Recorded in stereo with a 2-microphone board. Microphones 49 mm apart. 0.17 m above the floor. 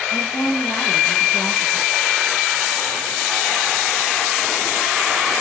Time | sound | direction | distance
0.1 | a woman speaking | 75° left (ahead or behind) | 4.5 m